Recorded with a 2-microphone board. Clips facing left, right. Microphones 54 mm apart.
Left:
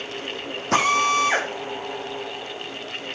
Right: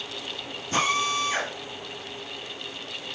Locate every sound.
0.7 s a drill: 80° left, 6 m